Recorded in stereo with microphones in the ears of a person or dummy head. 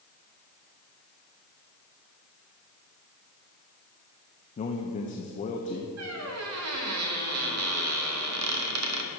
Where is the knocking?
No knocking in this recording.